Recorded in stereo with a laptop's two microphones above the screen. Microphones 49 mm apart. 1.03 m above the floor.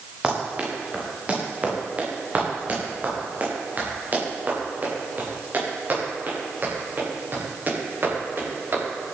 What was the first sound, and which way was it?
Running footsteps, 20° right (ahead or behind).